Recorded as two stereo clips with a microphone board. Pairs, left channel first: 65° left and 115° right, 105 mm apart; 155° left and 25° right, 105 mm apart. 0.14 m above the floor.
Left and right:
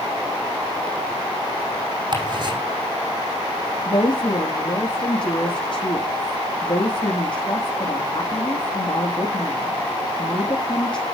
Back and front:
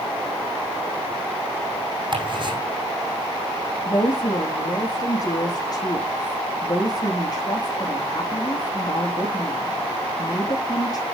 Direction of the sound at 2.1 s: 65° right.